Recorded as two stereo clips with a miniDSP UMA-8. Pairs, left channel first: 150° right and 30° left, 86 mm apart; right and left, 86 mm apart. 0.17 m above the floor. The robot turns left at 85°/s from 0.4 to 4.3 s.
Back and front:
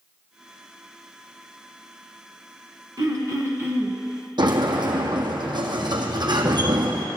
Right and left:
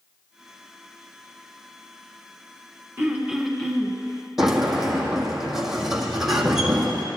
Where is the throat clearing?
40° left, 1.5 m; by 4.0 s 45° right, 1.5 m.